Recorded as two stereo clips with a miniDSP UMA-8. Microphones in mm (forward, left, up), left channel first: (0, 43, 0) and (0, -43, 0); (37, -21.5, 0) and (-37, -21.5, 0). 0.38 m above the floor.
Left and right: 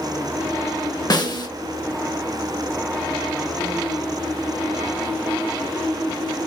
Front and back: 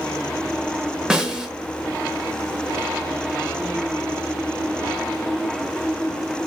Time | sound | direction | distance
1.1 | a snare drum | 100° left | 0.5 m